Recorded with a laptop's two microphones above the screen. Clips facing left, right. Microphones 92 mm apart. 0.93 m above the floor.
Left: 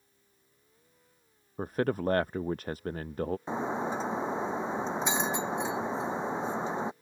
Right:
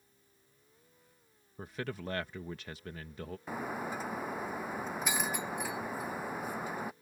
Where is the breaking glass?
25° left (ahead or behind).